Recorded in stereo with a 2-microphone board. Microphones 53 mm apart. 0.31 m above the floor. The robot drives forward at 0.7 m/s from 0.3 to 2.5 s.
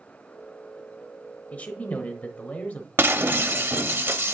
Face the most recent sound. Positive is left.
turn(degrees=-45)  # may be behind; listen again after turning